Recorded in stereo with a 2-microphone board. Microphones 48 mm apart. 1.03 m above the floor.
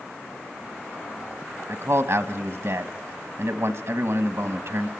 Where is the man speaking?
65° right (ahead or behind), 1.2 m.